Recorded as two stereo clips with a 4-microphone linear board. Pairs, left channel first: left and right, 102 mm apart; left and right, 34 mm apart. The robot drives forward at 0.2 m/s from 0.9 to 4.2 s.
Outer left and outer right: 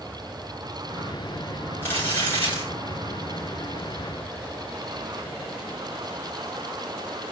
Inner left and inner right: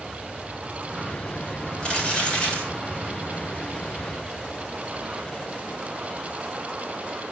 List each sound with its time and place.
1.8 s crumpling: 20° left (ahead or behind), 4 m